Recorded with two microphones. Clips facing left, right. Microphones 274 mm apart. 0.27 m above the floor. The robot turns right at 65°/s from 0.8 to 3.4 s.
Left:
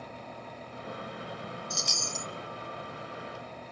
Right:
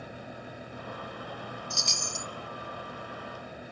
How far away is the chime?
About 0.7 m.